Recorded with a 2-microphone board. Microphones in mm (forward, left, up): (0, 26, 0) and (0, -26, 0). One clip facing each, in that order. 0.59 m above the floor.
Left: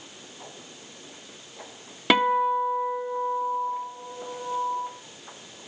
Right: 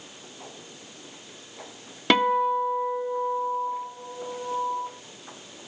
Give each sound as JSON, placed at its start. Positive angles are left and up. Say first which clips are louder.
{"t": 2.1, "sound": "a guitar", "louder": "even", "side_deg": 5, "distance_m": 1.2}